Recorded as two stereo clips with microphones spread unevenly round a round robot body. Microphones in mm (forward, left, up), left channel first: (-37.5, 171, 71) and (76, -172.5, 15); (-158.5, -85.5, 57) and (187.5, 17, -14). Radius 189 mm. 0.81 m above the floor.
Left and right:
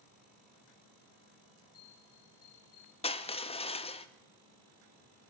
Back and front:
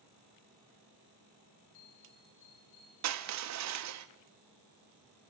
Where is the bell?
150° left, 9 m.